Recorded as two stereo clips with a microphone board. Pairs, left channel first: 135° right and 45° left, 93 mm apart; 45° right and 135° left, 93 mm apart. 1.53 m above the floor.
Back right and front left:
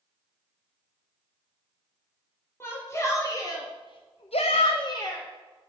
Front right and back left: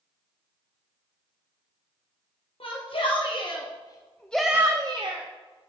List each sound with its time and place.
2.6 s a shout: 70° right, 1.7 m; by 5.7 s 155° left, 1.1 m